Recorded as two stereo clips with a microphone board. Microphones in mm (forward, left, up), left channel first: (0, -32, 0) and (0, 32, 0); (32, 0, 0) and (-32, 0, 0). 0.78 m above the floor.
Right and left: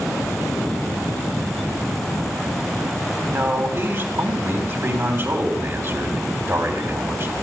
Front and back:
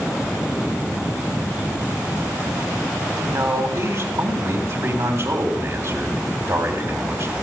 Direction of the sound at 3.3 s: 145° left.